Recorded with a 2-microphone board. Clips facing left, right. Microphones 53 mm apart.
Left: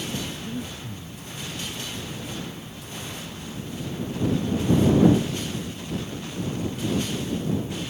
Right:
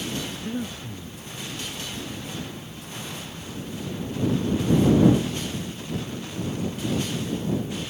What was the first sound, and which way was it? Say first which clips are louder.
Breathing: right 2 dB; 35° right (ahead or behind).